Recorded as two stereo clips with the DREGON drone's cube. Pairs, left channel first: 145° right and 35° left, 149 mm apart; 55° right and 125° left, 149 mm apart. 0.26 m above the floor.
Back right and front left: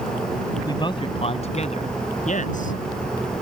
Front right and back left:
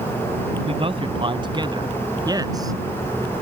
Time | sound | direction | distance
0.7 | a man speaking | 160° left | ?